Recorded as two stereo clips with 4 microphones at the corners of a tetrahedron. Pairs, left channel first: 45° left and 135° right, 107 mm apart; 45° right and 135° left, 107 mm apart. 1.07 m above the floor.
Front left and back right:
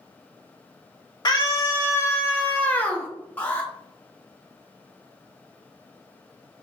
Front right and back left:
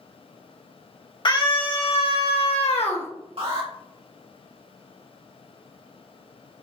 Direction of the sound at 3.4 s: 115° left.